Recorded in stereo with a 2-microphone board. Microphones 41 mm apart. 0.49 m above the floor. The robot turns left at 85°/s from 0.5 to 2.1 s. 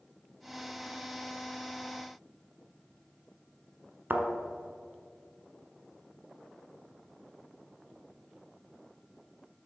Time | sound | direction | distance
4.1 | a thud | 50° right (ahead or behind) | 1.3 m